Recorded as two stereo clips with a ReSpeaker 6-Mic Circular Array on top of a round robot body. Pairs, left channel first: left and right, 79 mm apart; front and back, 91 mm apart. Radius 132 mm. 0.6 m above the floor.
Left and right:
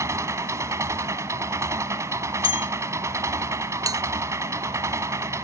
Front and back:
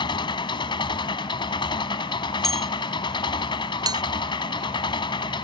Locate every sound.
0.0 s an engine running: 35° right
2.4 s a bell: 85° left
3.9 s a bell: 135° right